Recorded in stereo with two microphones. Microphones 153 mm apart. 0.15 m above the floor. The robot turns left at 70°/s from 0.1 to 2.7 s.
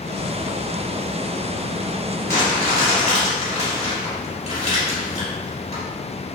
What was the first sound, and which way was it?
Crumpling, 165° left.